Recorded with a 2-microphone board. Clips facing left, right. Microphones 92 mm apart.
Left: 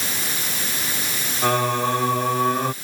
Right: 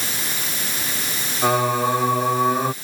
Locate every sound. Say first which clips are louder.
1.4 s singing: right 2 dB; 10° right (ahead or behind)